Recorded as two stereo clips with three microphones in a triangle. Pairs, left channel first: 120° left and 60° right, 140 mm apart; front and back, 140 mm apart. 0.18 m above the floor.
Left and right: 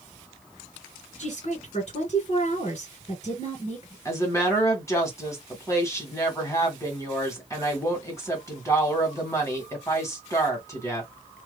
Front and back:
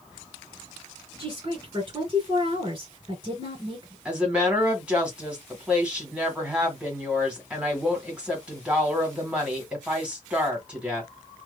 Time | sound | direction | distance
1.2 | a woman speaking | 135° left | 2.5 m
4.0 | a woman speaking | 115° left | 1.6 m